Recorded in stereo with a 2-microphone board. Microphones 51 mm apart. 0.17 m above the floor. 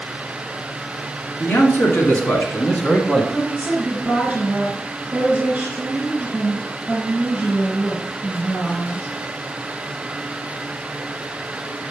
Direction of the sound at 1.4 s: 50° left (ahead or behind).